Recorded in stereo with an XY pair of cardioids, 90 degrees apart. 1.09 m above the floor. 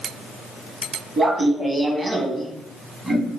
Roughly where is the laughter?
Ahead right.